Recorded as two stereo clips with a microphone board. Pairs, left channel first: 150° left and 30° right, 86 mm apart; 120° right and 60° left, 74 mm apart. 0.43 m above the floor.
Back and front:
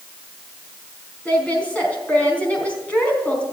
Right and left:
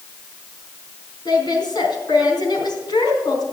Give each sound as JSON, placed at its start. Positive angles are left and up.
{"t": 1.2, "sound": "a woman speaking", "azimuth_deg": -135, "distance_m": 4.0}